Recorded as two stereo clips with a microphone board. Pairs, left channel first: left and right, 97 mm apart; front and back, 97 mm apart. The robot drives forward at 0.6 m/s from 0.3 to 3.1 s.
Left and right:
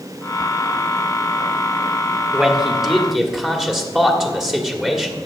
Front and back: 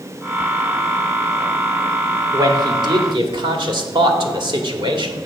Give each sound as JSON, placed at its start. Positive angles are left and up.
{"t": 2.3, "sound": "a man speaking", "azimuth_deg": -170, "distance_m": 1.2}